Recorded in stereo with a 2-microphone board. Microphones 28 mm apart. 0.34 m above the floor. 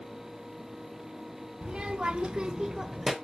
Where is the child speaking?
35° right (ahead or behind), 1.5 m; by 3.1 s 5° right (ahead or behind), 1.1 m.